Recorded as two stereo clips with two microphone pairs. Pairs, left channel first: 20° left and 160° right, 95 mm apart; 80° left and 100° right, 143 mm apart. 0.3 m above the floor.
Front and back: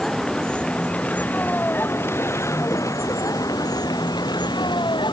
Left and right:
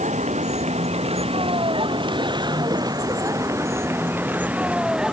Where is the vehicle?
65° right; by 5.1 s 15° right.